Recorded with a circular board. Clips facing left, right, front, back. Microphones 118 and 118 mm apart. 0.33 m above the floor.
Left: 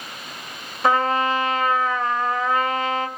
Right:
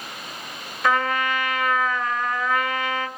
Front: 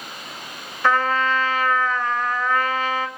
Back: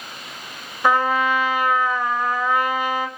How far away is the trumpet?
About 1.8 m.